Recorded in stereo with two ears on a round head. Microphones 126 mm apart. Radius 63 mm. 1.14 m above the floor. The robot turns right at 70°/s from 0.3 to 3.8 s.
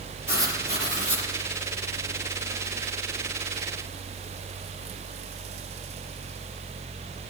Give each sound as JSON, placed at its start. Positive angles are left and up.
{"t": 0.3, "sound": "writing", "azimuth_deg": -160, "distance_m": 5.5}